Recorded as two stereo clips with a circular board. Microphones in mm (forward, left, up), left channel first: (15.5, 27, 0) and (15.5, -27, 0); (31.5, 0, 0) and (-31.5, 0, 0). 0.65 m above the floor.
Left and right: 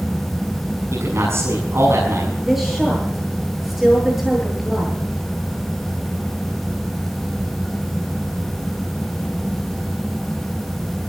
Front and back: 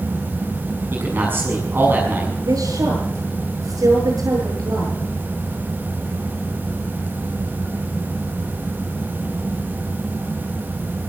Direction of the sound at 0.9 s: 125° right.